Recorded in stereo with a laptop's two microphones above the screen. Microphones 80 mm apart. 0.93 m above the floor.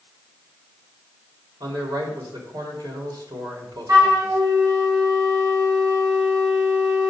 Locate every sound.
1.6 s a man speaking: 60° right (ahead or behind), 3.5 m
3.9 s a flute: 55° right (ahead or behind), 1.6 m